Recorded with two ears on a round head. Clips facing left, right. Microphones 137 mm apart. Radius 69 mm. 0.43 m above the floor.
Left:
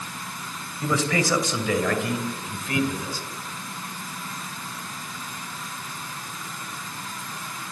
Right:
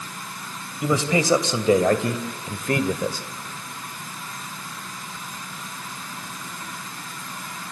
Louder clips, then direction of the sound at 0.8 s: Right 3 dB; 15° right (ahead or behind).